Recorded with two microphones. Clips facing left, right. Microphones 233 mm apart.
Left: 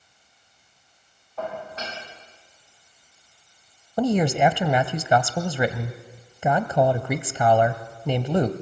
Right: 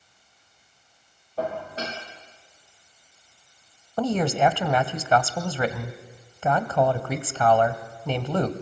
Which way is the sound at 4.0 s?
15° left (ahead or behind).